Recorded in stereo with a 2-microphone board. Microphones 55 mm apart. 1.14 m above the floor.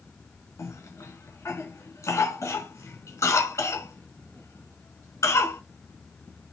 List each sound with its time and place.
0.6 s a cough: 75° left (ahead or behind), 1.6 m